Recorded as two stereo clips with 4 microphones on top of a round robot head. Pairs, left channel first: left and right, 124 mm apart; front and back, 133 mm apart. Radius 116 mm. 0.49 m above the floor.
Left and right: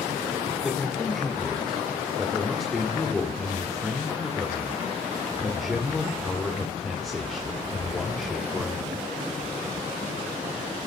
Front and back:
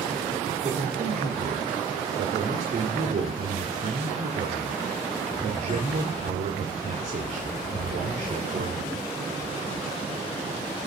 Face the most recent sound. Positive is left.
turn(degrees=175)